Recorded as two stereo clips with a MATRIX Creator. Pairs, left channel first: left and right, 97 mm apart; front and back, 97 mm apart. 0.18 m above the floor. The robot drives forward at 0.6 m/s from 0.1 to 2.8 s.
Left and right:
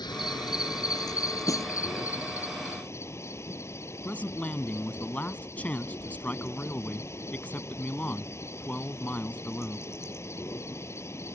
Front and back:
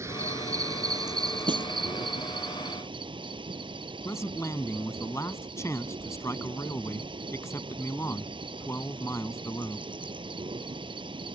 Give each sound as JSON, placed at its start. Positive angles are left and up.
{"t": 0.0, "sound": "an insect", "azimuth_deg": 125}
{"t": 1.5, "sound": "a snare drum", "azimuth_deg": 145}
{"t": 4.0, "sound": "a man speaking", "azimuth_deg": 30}